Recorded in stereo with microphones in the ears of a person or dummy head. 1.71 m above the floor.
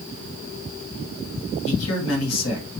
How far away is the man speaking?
About 1.8 m.